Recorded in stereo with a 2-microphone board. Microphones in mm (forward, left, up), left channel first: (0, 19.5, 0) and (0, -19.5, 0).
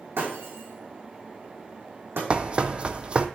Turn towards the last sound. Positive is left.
turn(degrees=-30)  # may be behind; listen again after turning